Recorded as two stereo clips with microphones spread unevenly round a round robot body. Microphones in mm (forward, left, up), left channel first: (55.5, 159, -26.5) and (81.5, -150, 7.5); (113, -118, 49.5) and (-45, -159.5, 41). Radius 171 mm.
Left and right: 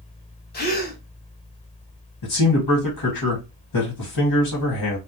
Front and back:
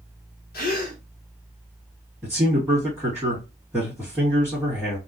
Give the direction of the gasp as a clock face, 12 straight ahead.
11 o'clock.